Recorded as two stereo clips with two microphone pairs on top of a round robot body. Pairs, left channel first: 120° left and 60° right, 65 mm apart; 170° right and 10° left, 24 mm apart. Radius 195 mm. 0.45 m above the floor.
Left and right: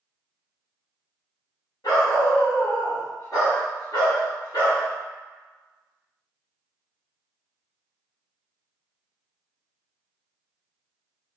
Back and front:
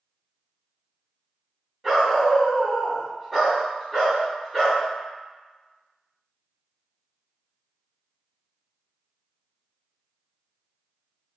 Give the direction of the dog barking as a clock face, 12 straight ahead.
9 o'clock.